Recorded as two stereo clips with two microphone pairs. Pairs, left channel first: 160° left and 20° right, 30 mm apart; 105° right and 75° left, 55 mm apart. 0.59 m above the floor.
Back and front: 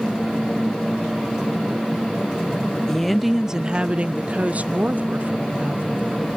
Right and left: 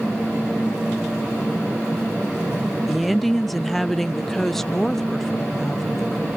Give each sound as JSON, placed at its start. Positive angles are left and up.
{"t": 2.9, "sound": "a woman speaking", "azimuth_deg": 145, "distance_m": 0.5}